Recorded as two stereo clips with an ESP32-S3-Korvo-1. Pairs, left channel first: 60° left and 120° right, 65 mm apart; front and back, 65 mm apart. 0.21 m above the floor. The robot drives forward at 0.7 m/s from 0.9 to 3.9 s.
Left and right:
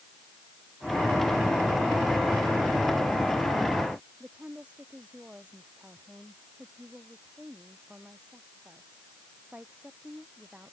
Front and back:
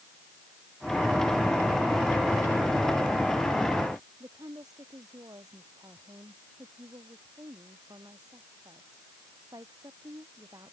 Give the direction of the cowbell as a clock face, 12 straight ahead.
No cowbell in this recording.